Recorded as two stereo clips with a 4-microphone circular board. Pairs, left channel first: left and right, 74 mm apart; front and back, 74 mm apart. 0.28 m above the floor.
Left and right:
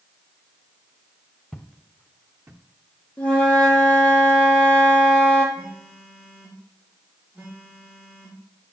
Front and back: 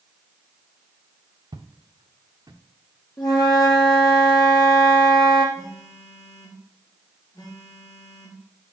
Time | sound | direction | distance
1.5 | footsteps | 175° left | 0.8 m
3.2 | a flute | 15° left | 3 m
5.5 | a phone buzzing | 20° right | 4 m